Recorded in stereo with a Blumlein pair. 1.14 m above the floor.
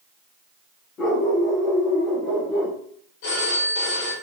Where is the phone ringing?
50° left, 3 m.